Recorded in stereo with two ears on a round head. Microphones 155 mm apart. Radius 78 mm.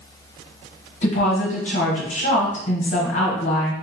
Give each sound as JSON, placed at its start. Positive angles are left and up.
{"t": 1.0, "sound": "a woman speaking", "side_deg": 55, "distance_m": 1.3}